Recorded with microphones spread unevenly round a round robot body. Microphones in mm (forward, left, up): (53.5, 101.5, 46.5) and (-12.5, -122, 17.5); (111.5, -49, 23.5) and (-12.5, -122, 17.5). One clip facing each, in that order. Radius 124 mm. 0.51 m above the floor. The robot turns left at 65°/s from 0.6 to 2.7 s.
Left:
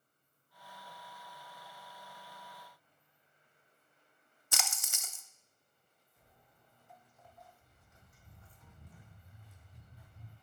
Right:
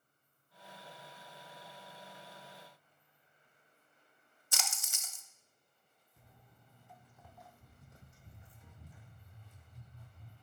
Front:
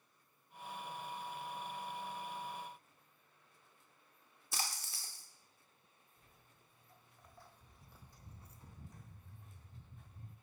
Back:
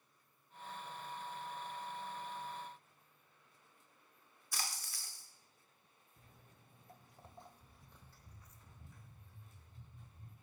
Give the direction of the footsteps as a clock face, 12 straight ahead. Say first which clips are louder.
Right 3 dB, back 5 dB; 4 o'clock.